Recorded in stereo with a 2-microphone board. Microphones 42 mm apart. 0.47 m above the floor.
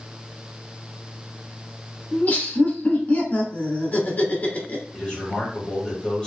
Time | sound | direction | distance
2.1 | laughter | 40° left (ahead or behind) | 1.1 m
4.9 | a man speaking | 20° left (ahead or behind) | 1.6 m